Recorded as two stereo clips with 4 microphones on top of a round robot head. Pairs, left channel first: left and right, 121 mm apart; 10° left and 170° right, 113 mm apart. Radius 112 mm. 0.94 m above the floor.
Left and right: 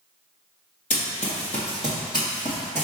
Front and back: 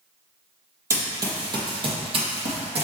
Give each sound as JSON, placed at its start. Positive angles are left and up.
{"t": 0.9, "sound": "running footsteps", "azimuth_deg": 130, "distance_m": 1.5}